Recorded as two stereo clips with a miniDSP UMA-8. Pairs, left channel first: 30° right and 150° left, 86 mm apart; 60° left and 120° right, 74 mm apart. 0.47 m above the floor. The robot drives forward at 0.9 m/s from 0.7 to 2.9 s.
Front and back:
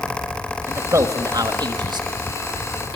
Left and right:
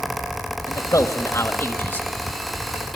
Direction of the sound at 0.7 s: 95° left.